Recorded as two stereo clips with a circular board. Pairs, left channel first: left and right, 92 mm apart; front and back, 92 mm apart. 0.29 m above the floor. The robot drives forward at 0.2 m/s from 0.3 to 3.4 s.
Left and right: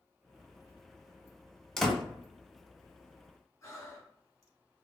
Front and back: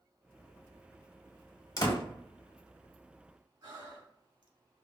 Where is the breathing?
145° left, 0.8 m.